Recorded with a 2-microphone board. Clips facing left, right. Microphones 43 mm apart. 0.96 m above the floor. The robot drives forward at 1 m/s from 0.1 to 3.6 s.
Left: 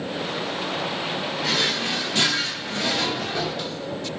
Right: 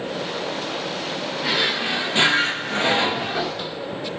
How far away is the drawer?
About 1.3 m.